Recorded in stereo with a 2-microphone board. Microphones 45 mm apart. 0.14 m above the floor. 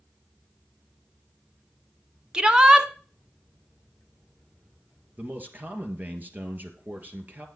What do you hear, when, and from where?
2.3 s a shout: 20° right (ahead or behind), 1.1 m
5.2 s a man speaking: 40° right (ahead or behind), 2.5 m